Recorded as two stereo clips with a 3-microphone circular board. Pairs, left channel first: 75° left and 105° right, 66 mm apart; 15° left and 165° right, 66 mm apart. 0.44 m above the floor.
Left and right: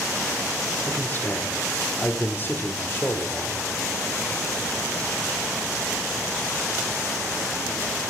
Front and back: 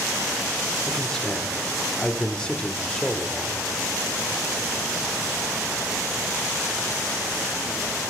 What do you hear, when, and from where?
0.9 s a man speaking: 85° left, 1.0 m